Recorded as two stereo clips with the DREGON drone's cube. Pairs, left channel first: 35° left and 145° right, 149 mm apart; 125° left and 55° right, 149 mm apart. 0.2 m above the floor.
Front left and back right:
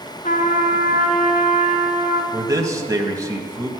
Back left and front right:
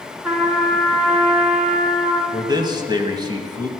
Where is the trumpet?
25° left, 2 m.